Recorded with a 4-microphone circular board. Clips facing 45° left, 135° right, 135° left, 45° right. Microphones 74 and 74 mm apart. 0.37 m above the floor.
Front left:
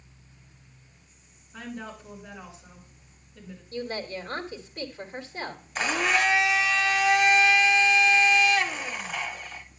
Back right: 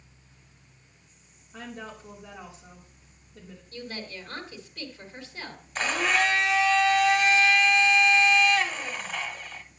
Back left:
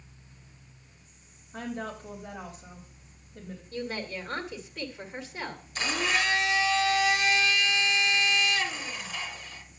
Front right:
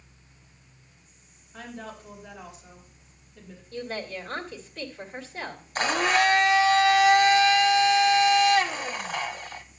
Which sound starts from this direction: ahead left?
A woman speaking, at 3.7 s.